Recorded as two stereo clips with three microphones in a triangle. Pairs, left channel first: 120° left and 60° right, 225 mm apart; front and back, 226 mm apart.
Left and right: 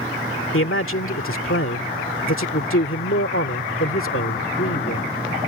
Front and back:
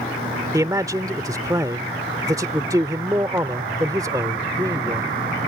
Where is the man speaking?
105° left.